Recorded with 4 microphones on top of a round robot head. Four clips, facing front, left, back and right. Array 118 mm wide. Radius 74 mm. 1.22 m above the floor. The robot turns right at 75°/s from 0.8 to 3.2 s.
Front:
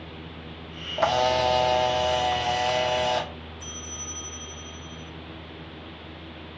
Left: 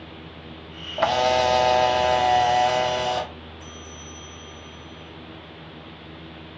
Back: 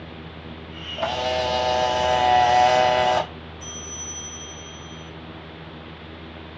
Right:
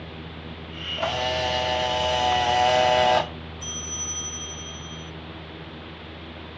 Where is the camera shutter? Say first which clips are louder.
Left 6 dB, front 2 dB; 60° left, 0.8 m; by 3.3 s 135° right, 0.8 m.